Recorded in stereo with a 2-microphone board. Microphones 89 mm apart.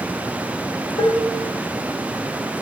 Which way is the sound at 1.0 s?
75° left (ahead or behind).